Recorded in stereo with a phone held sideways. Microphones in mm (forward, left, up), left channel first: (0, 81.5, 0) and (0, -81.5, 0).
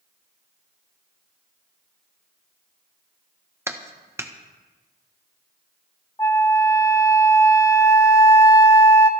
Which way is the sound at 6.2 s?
20° left (ahead or behind).